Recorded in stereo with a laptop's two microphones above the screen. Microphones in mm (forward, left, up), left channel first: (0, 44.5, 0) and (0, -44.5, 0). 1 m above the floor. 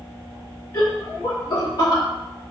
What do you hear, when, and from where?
0.7 s laughter: 50° left (ahead or behind), 2.5 m; by 2.0 s 55° left (ahead or behind), 4 m